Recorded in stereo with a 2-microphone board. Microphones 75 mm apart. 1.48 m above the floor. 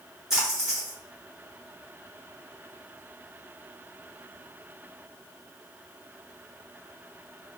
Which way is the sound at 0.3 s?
10° right (ahead or behind).